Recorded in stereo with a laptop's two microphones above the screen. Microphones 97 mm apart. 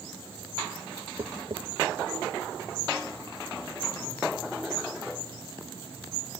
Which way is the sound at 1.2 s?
60° right (ahead or behind).